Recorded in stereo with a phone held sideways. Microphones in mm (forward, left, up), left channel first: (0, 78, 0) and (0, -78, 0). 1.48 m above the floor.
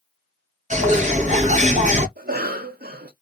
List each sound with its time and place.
0.7 s a bird: 50° right (ahead or behind), 1.0 m
2.2 s a cough: 80° right, 0.8 m